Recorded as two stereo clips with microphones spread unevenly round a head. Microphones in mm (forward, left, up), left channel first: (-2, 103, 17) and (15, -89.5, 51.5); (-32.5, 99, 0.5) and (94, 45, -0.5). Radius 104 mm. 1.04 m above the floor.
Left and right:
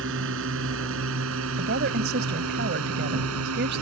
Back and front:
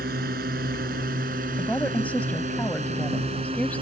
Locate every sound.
0.0 s a drone: 65° right; by 3.8 s 90° right
1.6 s a woman speaking: 120° right